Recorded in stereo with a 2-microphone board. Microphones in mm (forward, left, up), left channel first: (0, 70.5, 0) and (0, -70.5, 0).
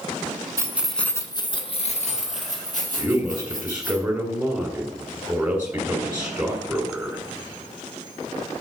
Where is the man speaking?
10° right (ahead or behind), 1.7 m.